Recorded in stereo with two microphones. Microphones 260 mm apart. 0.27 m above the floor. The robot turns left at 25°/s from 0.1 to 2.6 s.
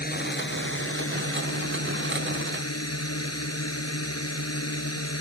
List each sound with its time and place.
0.0 s a drone: 140° left; by 5.2 s 80° left